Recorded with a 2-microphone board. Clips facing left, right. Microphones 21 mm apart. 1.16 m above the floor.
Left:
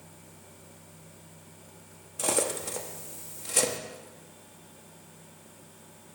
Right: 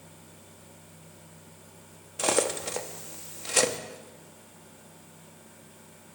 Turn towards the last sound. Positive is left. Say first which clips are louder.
# right 3 dB
turn(degrees=-30)  # may be behind; listen again after turning